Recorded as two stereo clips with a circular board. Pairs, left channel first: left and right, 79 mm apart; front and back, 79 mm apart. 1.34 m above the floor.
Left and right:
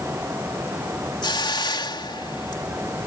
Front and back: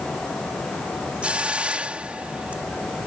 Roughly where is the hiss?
Left.